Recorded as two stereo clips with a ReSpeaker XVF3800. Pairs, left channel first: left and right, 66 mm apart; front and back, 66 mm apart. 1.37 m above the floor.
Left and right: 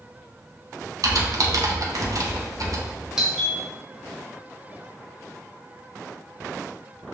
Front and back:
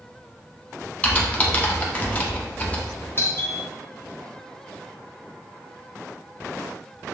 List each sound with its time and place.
1.0 s typing on a keyboard: 70° right, 0.8 m
3.2 s a doorbell: 15° right, 1.1 m